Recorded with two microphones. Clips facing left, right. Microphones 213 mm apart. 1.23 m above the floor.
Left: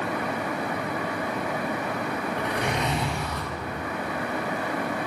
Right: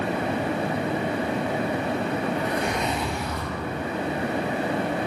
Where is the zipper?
80° left, 5.5 m.